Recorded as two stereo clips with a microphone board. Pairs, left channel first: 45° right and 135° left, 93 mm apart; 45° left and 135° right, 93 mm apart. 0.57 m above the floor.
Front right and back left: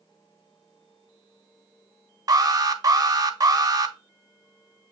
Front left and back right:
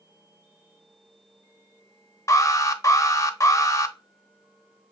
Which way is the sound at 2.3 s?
90° left.